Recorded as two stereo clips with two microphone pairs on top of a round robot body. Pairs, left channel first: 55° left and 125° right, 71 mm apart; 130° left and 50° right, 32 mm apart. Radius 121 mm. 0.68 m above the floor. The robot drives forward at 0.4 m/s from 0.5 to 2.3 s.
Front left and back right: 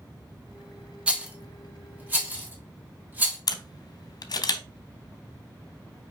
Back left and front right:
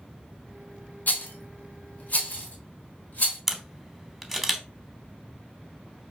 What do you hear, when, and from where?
1.1 s a rattle: 160° left, 0.7 m; by 3.4 s 170° left, 1.2 m
3.5 s a camera shutter: 30° left, 0.7 m